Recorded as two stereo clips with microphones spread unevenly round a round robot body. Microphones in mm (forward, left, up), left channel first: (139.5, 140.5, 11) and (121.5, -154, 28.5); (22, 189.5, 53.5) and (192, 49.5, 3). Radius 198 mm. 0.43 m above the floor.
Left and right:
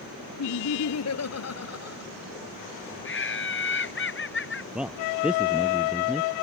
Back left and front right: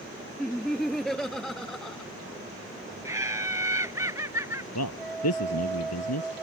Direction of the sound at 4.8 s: Straight behind.